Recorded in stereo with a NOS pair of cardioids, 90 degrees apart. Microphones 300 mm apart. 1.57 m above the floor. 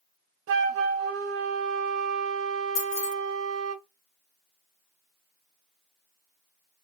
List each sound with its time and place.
0.5 s a flute: 50° right, 1.2 m
2.8 s keys jangling: 60° left, 2.5 m